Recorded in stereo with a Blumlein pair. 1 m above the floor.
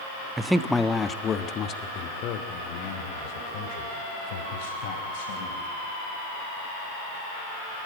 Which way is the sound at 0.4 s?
10° right.